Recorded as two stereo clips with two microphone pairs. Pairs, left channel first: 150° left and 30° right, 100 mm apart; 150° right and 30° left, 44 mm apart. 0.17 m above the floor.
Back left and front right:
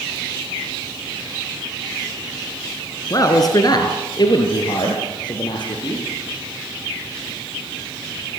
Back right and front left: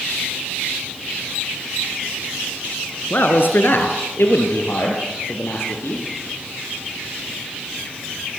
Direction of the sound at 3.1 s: 170° right.